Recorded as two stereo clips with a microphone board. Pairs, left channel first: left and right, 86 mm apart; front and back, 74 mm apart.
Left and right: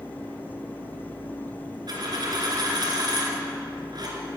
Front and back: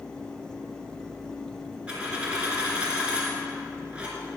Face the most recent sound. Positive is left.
turn(degrees=-105)